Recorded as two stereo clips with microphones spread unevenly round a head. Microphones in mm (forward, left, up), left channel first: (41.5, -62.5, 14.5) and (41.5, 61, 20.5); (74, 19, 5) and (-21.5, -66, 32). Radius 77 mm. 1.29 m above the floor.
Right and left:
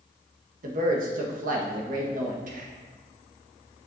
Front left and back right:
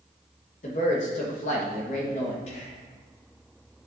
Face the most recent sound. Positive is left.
turn(degrees=85)